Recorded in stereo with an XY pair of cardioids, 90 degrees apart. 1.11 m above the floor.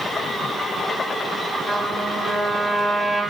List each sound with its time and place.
1.7 s a trumpet: straight ahead, 2 m